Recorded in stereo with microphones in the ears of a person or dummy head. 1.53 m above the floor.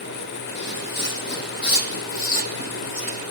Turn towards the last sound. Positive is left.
turn(degrees=40)  # may be behind; listen again after turning